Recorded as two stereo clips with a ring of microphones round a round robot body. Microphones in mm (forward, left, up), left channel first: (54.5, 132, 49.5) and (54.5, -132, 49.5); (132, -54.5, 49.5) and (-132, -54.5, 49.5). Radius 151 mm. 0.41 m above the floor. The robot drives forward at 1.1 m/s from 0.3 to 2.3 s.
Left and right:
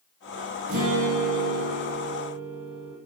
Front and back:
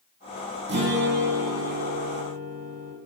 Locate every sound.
0.7 s a guitar: 135° right, 8 m; by 2.9 s 145° right, 9 m